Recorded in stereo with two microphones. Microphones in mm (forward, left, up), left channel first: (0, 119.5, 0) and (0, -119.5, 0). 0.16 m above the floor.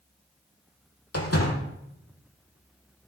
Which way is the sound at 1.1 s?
80° left.